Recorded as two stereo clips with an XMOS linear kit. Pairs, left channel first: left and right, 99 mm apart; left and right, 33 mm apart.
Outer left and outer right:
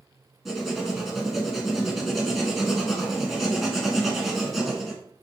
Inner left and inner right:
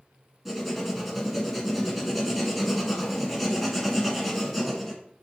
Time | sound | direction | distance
0.5 | writing | centre (ahead or behind) | 1.8 m